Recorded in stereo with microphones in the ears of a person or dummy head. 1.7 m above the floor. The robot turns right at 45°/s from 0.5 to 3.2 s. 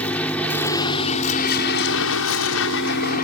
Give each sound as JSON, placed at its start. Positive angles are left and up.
{"t": 0.0, "sound": "a vehicle", "azimuth_deg": 15}